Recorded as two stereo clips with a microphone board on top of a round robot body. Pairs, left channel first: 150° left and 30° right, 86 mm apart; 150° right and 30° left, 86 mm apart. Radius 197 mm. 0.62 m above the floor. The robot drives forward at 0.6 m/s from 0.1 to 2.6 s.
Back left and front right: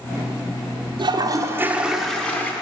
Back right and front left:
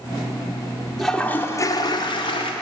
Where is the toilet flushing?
60° right, 0.6 m; by 2.5 s 140° right, 0.8 m.